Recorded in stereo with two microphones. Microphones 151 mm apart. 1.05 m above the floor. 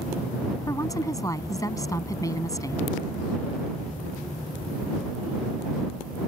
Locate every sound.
0.7 s a woman speaking: 20° left (ahead or behind)